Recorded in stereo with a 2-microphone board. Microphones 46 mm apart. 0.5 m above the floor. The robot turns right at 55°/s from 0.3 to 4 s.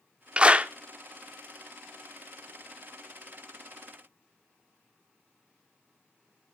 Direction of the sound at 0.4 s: 25° right (ahead or behind).